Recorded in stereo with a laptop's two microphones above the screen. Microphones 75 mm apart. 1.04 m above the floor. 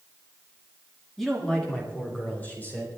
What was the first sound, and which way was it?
A man speaking, centre (ahead or behind).